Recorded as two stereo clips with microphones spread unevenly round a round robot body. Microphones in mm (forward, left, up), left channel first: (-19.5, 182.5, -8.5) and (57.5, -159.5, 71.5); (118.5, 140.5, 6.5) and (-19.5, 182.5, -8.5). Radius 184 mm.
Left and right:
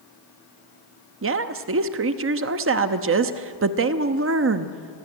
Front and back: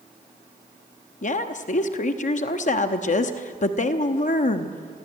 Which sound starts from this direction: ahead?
A woman speaking, at 1.2 s.